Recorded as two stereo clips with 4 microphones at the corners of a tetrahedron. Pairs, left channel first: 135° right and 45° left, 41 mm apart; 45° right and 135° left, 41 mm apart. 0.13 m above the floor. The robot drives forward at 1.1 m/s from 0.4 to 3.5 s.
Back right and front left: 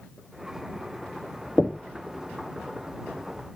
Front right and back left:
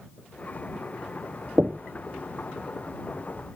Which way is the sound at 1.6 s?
165° left.